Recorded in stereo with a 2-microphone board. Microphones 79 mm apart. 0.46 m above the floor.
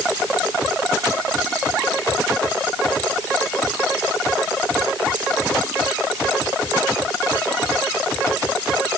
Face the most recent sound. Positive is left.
No sound to turn to.